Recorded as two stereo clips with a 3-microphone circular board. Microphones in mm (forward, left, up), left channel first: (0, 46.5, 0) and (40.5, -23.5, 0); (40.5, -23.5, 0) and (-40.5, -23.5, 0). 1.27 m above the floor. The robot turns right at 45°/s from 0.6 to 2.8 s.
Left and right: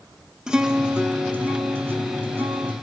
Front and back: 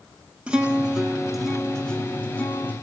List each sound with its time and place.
0.5 s a guitar: 125° right, 0.8 m; by 2.7 s 30° right, 0.8 m